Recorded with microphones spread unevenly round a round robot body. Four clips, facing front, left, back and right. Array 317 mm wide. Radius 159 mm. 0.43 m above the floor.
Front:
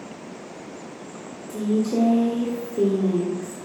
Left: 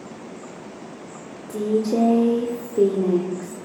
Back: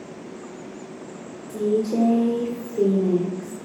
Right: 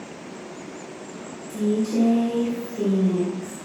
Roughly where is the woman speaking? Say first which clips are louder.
Left 2 dB, back 1 dB; left.